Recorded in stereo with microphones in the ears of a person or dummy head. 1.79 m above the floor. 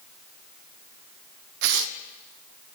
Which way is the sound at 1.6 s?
65° right (ahead or behind).